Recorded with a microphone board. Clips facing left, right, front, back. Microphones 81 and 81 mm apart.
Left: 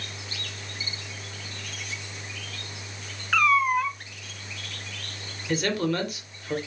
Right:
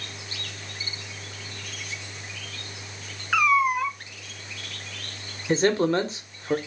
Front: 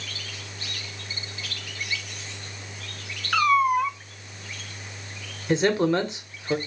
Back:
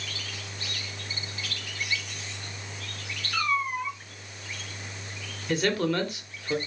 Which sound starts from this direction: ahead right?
A man speaking, at 5.5 s.